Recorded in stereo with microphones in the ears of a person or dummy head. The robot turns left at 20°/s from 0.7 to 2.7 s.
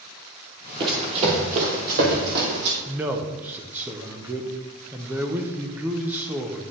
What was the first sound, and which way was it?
Running footsteps, 25° right (ahead or behind).